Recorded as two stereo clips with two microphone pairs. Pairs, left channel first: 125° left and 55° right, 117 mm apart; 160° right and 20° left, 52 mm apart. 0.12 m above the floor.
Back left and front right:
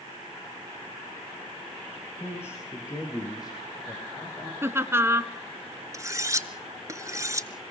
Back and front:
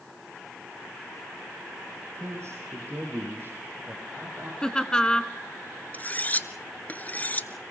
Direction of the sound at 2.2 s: 55° left.